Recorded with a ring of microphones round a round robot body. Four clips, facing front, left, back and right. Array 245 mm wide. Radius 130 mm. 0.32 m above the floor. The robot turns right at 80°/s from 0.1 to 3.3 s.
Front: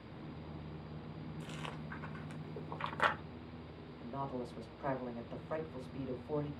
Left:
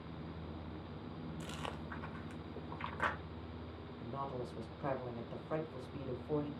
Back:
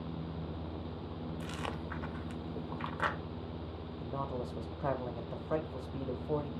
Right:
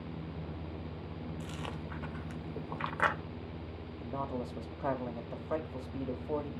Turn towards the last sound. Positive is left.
turn(degrees=-135)